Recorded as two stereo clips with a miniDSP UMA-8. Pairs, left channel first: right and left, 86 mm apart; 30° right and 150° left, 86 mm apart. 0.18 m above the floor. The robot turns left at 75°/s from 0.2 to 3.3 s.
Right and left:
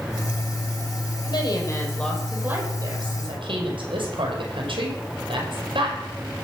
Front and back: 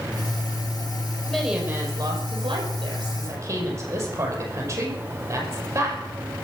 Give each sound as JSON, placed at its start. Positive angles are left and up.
{"t": 1.3, "sound": "a woman speaking", "azimuth_deg": -115, "distance_m": 5.5}